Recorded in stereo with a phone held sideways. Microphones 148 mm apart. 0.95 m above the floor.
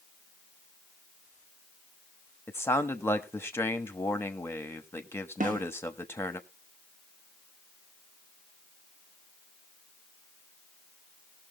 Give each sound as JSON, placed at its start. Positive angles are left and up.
{"t": 2.5, "sound": "a man speaking", "side_deg": 15, "distance_m": 1.1}
{"t": 5.4, "sound": "a snare drum", "side_deg": -65, "distance_m": 1.1}